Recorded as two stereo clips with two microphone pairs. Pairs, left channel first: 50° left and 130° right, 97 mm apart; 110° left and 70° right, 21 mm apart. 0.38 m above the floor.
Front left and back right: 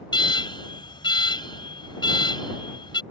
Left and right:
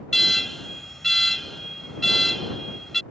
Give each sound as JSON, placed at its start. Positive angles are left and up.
{"t": 0.1, "sound": "an alarm", "azimuth_deg": 40}